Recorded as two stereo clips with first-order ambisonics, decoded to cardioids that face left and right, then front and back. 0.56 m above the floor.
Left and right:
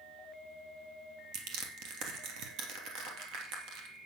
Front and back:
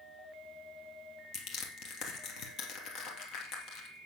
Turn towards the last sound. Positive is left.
turn(degrees=-55)